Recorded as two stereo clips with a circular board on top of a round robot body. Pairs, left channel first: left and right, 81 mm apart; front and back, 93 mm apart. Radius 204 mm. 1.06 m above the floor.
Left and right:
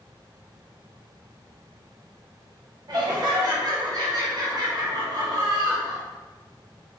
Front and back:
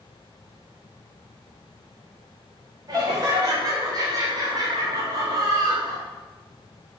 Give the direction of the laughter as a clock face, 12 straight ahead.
4 o'clock.